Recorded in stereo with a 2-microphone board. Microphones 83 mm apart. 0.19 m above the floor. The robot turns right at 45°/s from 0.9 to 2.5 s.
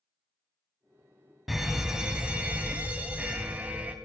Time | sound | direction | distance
1.5 | a fire alarm | centre (ahead or behind) | 2.0 m